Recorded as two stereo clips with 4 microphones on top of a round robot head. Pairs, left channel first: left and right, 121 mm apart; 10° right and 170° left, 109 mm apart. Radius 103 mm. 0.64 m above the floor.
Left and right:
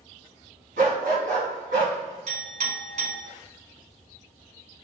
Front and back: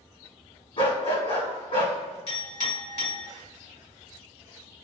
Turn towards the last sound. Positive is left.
turn(degrees=-55)